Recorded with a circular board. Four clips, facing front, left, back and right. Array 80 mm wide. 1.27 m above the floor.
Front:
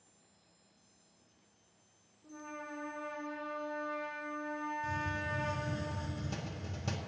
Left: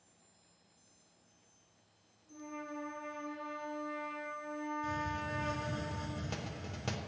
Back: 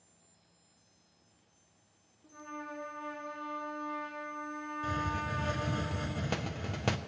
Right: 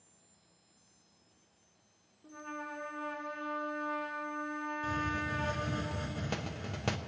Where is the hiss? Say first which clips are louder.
Right 3 dB, back 3 dB; 155° right, 0.6 m.